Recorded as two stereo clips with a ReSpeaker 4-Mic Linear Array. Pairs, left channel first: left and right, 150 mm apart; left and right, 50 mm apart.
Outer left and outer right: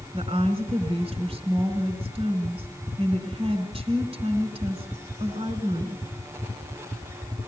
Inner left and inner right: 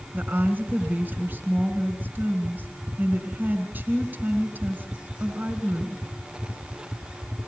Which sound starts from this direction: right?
A woman speaking, at 0.1 s.